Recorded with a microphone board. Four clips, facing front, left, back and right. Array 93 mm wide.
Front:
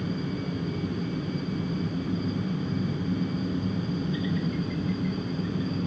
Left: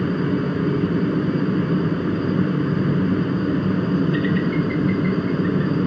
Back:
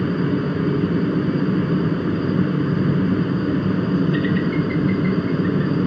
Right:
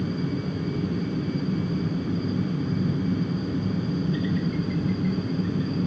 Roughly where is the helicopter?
Behind left.